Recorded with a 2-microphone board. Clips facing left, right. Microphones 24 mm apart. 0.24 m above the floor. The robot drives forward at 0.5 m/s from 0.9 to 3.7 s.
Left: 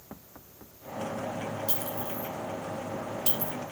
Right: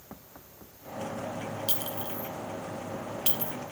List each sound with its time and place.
1.7 s a clink: 60° right (ahead or behind), 1.1 m; by 3.5 s 45° right (ahead or behind), 1.3 m